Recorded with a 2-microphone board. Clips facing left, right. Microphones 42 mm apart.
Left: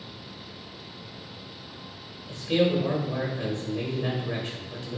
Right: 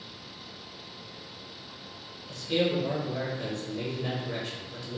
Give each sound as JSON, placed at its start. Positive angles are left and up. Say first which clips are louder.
{"t": 2.3, "sound": "a man speaking", "louder": "left 4 dB", "side_deg": 20, "distance_m": 0.8}